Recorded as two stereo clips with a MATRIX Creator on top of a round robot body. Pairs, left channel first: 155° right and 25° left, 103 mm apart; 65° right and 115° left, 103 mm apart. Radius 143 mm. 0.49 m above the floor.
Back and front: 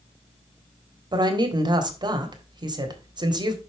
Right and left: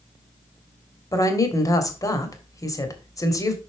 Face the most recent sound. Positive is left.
turn(degrees=-15)